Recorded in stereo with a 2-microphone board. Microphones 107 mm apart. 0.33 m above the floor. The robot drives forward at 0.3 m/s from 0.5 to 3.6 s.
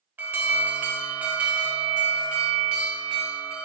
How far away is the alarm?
About 0.6 m.